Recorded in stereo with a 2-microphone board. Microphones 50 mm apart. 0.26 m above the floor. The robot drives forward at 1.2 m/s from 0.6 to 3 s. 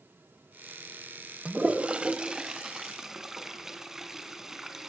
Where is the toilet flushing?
20° right (ahead or behind), 0.8 m; by 4.9 s 10° right (ahead or behind), 1.8 m.